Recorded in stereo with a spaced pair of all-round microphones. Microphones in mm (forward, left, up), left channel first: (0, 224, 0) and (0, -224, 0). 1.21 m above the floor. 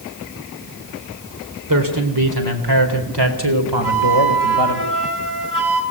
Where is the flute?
65° right (ahead or behind), 5.5 m.